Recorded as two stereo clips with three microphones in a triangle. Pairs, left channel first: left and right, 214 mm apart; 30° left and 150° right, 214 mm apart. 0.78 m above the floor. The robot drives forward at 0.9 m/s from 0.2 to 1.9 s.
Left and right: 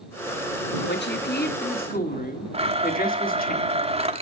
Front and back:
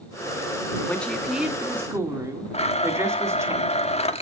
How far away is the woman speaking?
About 1.9 m.